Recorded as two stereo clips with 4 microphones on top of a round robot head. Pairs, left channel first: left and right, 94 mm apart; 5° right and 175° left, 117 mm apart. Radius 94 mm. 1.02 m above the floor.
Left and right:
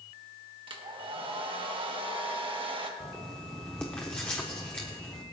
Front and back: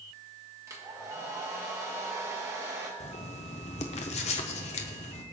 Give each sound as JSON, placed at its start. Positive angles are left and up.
{"t": 0.7, "sound": "a hair dryer", "azimuth_deg": -115, "distance_m": 1.5}
{"t": 3.0, "sound": "writing", "azimuth_deg": 5, "distance_m": 0.8}